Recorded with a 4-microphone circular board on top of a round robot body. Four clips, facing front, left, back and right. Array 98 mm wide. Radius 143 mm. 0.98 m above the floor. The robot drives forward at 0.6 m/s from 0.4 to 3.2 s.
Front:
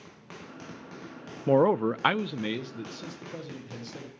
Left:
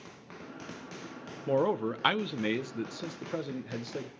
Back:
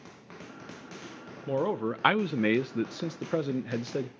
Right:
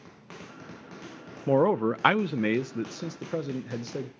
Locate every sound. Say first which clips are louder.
1.5 s a man speaking: right 5 dB, front 7 dB; 25° right, 0.6 m; by 4.1 s 165° right, 0.9 m